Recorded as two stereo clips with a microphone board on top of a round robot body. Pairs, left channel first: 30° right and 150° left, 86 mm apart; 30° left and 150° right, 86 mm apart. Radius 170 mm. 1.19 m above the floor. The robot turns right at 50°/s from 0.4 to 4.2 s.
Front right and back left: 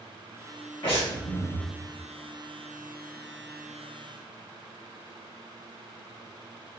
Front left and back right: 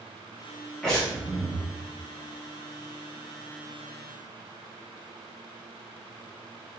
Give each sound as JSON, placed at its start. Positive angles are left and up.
{"t": 0.8, "sound": "breathing", "azimuth_deg": -60, "distance_m": 1.2}